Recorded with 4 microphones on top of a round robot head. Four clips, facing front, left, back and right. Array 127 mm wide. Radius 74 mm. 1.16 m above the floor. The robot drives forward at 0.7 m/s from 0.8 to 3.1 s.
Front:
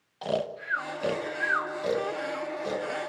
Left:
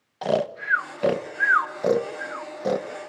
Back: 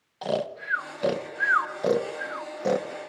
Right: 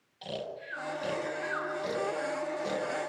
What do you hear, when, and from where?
0.2 s snoring: 95° left, 1.3 m; by 2.9 s 140° left, 2 m